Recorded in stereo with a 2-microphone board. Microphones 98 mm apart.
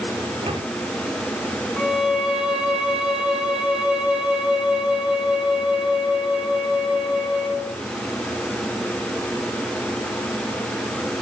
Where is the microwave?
60° right (ahead or behind), 8 m.